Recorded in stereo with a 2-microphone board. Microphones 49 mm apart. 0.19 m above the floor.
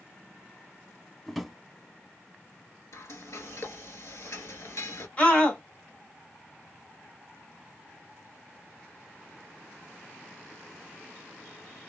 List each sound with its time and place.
1.3 s a drawer: centre (ahead or behind), 0.5 m
2.9 s frying: 65° left (ahead or behind), 0.7 m
5.2 s a scream: 25° left (ahead or behind), 1.2 m